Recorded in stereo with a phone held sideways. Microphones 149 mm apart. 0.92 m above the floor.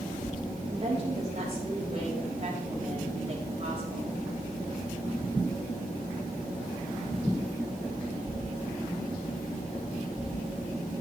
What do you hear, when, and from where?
0.7 s a woman speaking: 45° right (ahead or behind), 5 m